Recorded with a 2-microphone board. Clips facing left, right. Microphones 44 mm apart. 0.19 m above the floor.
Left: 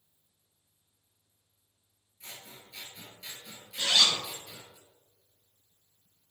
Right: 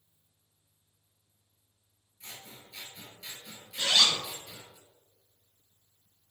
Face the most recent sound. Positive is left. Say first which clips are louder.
# even
turn(degrees=-25)  # may be behind; listen again after turning